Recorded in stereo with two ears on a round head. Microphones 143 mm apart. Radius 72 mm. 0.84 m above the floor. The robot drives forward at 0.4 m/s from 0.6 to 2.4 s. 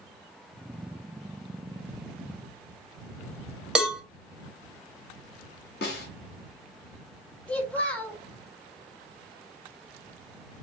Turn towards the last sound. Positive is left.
turn(degrees=10)  # may be behind; listen again after turning